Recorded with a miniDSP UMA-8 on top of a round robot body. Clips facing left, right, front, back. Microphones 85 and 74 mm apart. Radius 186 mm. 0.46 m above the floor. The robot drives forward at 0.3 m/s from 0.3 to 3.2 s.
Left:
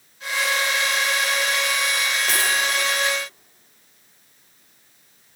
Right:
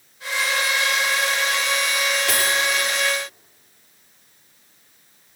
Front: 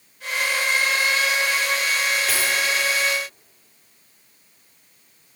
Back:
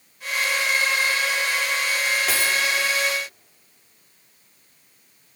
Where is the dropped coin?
175° left, 6 m.